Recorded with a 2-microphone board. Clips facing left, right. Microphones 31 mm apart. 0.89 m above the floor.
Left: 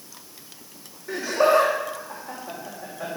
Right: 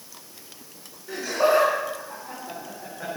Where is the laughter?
15° left (ahead or behind), 2.5 m; by 3.1 s 5° left (ahead or behind), 4 m.